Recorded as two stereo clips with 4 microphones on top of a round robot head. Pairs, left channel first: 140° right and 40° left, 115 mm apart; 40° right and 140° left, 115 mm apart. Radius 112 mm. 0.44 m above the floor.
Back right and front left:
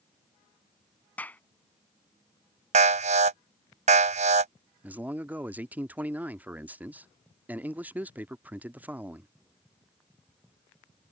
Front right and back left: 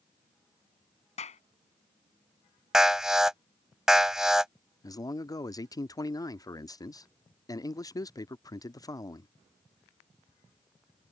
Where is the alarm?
55° left.